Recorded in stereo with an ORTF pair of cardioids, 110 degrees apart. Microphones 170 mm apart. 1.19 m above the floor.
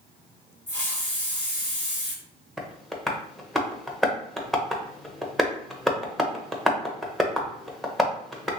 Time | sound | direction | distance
0.7 | a hiss | 10° left | 1.3 m
2.6 | tapping | straight ahead | 0.7 m